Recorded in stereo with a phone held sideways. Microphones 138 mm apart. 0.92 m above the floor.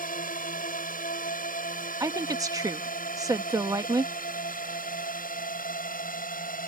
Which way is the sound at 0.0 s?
75° left (ahead or behind).